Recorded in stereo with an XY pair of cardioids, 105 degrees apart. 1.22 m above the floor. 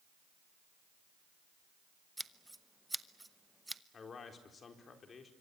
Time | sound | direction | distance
2.2 | scissors | 10° right | 0.9 m
3.9 | a man speaking | 40° left | 4 m